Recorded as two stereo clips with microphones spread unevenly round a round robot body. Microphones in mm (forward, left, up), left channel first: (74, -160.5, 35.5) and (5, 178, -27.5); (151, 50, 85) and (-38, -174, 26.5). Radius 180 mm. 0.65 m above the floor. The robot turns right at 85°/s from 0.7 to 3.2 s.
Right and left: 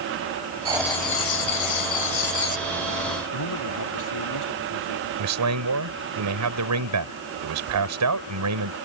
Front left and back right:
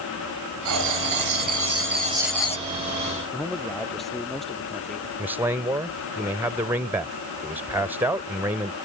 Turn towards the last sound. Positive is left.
turn(degrees=150)